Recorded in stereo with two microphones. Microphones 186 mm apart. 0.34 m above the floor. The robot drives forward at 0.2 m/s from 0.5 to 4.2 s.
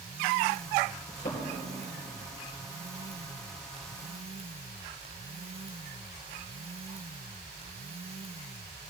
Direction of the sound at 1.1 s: 70° left (ahead or behind).